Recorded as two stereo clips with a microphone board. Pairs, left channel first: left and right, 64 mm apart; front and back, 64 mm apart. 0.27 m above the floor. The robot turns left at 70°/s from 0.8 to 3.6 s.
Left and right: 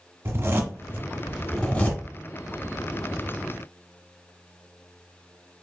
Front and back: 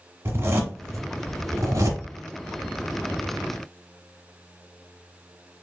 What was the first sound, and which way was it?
A zipper, 135° right.